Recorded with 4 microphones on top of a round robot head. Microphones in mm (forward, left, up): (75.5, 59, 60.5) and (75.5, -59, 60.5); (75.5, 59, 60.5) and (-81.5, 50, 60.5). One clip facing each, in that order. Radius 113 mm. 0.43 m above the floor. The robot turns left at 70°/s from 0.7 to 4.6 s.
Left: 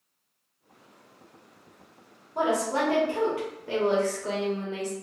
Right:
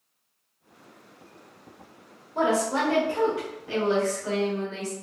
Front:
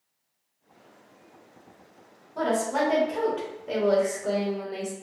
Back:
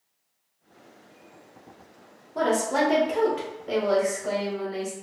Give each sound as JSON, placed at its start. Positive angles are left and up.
{"t": 2.4, "sound": "a woman speaking", "azimuth_deg": 175, "distance_m": 1.9}